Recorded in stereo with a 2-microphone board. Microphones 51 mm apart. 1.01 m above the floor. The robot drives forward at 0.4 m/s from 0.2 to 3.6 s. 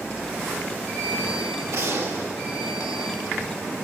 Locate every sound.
1.7 s a gunshot: 70° right (ahead or behind), 2.5 m